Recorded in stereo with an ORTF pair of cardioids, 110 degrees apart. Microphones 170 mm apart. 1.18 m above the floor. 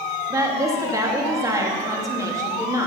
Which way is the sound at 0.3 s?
20° right.